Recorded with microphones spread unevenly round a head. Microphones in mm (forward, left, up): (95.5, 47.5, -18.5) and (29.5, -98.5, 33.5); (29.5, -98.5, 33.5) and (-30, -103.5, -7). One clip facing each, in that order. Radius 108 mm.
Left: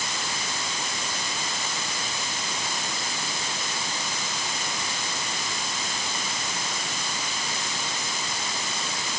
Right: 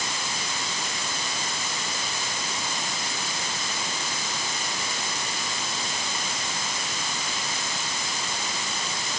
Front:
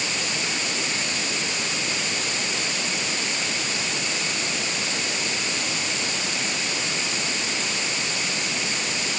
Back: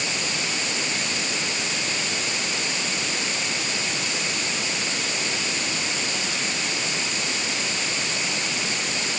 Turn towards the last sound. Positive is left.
No sound to turn to.